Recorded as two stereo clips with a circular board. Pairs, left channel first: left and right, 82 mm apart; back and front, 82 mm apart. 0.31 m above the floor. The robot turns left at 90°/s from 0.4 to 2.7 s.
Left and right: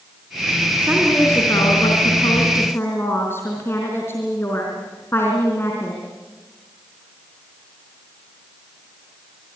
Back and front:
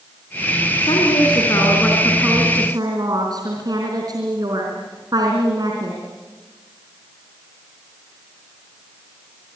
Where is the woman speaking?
155° right, 4 m; by 6.0 s 30° left, 4 m.